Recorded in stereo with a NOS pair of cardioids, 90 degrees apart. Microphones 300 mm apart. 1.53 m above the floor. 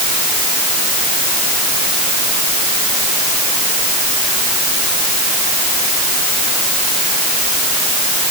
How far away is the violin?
No violin in this recording.